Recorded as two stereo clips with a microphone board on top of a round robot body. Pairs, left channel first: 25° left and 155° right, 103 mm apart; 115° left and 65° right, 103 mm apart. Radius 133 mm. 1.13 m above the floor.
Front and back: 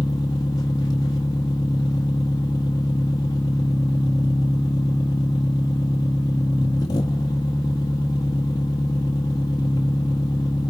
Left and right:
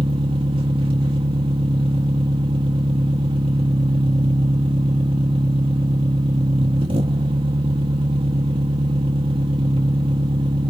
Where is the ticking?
I don't hear ticking.